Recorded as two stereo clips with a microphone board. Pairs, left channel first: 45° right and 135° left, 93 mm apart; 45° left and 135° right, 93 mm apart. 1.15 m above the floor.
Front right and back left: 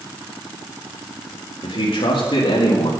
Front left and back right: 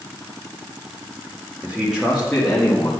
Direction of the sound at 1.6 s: 65° right.